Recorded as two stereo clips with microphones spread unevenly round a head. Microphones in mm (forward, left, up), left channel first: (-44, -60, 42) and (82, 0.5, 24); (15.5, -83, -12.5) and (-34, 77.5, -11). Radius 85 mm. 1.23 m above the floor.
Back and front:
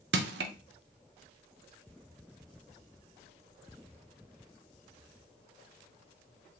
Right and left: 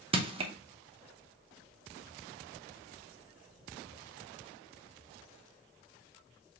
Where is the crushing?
45° left, 0.6 m.